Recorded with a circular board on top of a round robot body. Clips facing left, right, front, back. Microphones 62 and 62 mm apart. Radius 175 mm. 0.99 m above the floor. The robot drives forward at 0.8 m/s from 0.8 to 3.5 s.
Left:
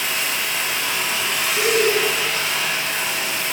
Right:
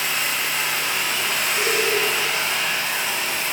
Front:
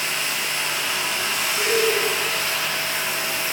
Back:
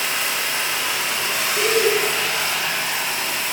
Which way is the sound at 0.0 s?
Straight behind.